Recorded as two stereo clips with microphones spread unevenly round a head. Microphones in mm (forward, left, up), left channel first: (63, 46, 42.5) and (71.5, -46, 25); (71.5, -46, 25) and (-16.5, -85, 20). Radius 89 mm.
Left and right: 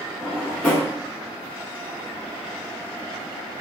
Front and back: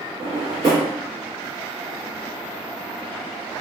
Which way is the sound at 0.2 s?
165° left.